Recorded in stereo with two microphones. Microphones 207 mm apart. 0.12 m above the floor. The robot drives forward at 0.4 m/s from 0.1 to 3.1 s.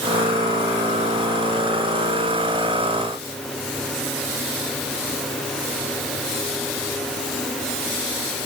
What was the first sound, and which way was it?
Only background noise.